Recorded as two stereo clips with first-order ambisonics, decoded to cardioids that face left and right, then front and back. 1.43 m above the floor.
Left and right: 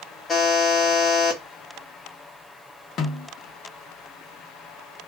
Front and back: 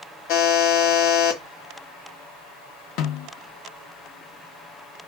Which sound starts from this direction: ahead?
A buzzer, at 0.3 s.